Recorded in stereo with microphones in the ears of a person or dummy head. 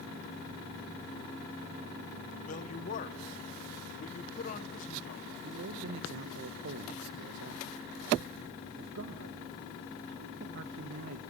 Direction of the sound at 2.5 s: 45° left (ahead or behind).